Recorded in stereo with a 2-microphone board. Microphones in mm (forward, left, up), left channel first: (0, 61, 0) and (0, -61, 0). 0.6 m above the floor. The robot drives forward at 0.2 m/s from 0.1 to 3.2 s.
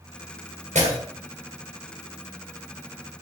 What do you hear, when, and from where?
0.8 s breaking glass: 75° right (ahead or behind), 1.8 m